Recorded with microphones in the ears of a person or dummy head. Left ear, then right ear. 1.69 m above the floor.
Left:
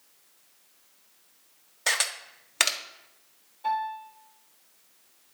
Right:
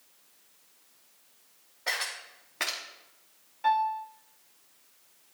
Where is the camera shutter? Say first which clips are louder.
Left 5 dB; 85° left, 1.1 m.